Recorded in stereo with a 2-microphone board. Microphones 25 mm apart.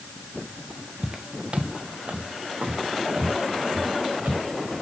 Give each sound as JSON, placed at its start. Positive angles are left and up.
{"t": 1.0, "sound": "footsteps", "side_deg": -30, "distance_m": 0.9}